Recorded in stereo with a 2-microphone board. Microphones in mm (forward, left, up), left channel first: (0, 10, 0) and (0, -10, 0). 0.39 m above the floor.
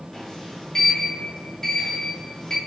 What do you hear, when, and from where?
0.1 s a sliding door: 15° left (ahead or behind), 6.5 m